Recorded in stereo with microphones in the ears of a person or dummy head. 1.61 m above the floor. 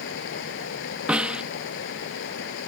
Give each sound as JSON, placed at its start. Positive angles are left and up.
{"t": 0.0, "sound": "running water", "side_deg": 65}
{"t": 1.1, "sound": "a snare drum", "side_deg": 0}